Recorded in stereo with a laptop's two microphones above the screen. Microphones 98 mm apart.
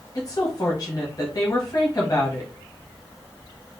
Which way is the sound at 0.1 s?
40° left (ahead or behind).